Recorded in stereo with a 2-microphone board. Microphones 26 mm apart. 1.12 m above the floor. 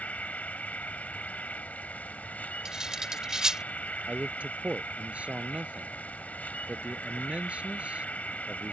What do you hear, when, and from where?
0.0 s an insect: 75° left (ahead or behind)
2.6 s cutlery clinking: 30° right (ahead or behind)
4.1 s a man speaking: 60° right (ahead or behind)